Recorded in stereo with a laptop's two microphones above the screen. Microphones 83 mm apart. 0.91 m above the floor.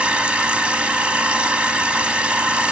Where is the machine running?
15° right (ahead or behind), 1.3 m.